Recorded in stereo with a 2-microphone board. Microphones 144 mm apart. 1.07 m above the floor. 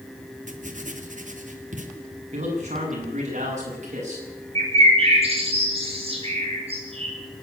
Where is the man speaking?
50° right (ahead or behind), 8.5 m.